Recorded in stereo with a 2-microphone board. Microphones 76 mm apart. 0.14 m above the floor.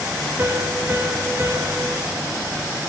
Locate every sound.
0.4 s a piano: 30° right (ahead or behind), 0.5 m